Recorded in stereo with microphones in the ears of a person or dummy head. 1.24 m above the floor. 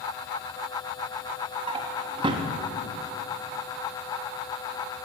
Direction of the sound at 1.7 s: 25° right (ahead or behind).